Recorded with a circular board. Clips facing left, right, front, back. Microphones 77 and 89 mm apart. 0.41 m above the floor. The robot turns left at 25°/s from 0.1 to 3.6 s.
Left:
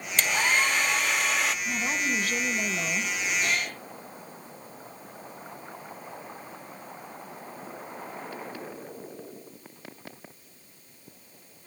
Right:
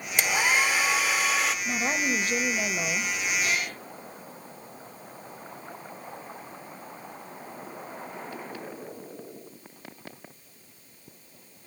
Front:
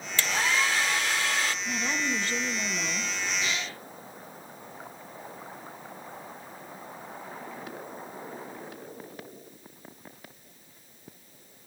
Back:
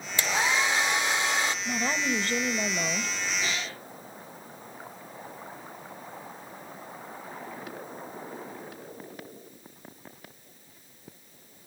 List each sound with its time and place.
0.2 s a hair dryer: 140° right, 1.0 m; by 1.6 s 175° right, 1.0 m
1.6 s a woman speaking: 130° right, 1.6 m; by 3.2 s 170° right, 1.6 m
3.4 s a cat meowing: 125° left, 8 m; by 3.8 s 120° left, 8 m